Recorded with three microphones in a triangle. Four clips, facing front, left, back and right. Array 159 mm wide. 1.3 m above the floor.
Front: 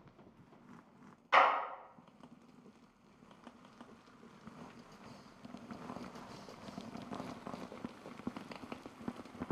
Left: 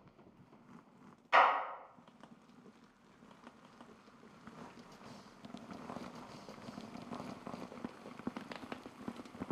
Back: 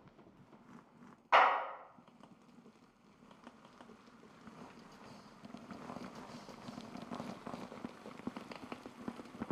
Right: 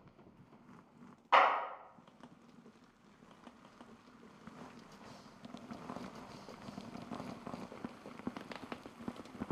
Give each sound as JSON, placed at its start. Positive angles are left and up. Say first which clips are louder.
{"t": 1.3, "sound": "a clap", "louder": "even, even", "azimuth_deg": -130, "distance_m": 1.8}